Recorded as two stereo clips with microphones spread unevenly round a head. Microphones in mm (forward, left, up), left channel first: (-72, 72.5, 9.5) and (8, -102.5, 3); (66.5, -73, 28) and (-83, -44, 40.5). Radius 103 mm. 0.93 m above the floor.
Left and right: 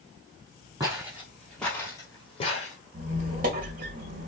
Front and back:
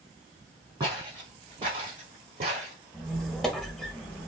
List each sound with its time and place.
0.8 s footsteps: 135° right, 1.5 m; by 2.8 s 140° left, 1.2 m
2.9 s a squeak: 105° right, 0.8 m